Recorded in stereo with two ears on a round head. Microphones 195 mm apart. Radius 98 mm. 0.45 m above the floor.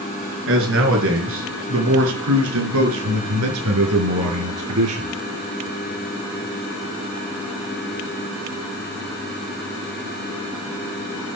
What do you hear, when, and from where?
0.5 s a man speaking: 60° right (ahead or behind), 6 m; by 5.1 s 80° right, 6.5 m